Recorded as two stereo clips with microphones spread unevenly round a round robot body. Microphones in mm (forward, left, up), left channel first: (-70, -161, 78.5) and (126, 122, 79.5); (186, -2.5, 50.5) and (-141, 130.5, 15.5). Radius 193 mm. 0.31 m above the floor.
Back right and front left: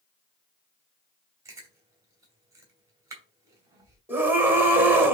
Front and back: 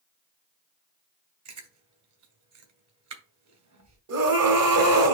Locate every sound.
1.4 s chewing: 135° left, 2.5 m
4.1 s a scream: 140° left, 1.9 m